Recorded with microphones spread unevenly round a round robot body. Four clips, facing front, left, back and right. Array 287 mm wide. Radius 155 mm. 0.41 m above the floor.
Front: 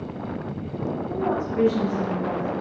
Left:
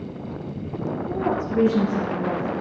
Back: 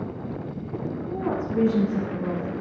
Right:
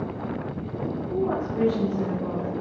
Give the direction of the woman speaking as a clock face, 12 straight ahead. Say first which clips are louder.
Left 1 dB, front 1 dB; 8 o'clock.